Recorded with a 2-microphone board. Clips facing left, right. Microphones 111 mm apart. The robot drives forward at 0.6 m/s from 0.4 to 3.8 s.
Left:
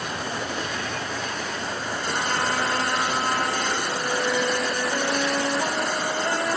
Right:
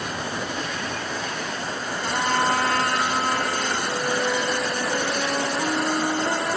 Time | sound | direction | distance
2.0 | a trumpet | 60° right (ahead or behind) | 4.5 m
3.9 | a flute | 15° right (ahead or behind) | 9.5 m